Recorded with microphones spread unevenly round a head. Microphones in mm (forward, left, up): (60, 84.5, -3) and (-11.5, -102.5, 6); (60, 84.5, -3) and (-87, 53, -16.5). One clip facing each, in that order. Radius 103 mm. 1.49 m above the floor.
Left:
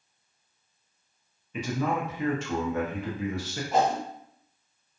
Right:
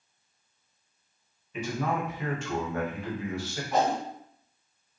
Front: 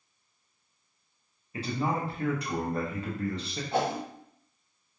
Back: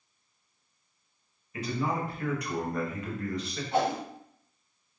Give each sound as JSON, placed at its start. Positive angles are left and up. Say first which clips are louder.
{"t": 1.5, "sound": "a man speaking", "louder": "left 2 dB, front 1 dB", "azimuth_deg": 75, "distance_m": 0.9}
{"t": 3.7, "sound": "a whoosh", "louder": "left 1 dB, back 1 dB", "azimuth_deg": 5, "distance_m": 1.3}